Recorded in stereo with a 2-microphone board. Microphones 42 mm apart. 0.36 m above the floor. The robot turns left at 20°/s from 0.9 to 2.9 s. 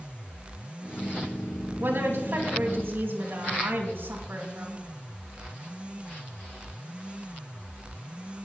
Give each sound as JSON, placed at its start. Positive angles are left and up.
{"t": 1.8, "sound": "a woman speaking", "side_deg": -60, "distance_m": 3.0}